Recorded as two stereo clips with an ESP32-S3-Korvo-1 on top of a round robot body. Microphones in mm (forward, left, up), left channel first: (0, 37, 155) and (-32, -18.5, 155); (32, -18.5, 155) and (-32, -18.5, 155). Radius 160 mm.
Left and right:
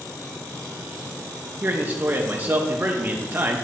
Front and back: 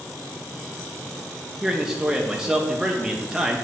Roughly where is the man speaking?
Right.